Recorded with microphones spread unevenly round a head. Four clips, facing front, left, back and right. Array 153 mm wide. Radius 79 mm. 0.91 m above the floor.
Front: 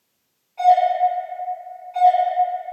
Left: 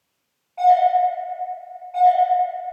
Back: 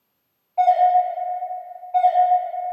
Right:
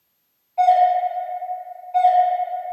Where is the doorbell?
155° left, 1.6 m.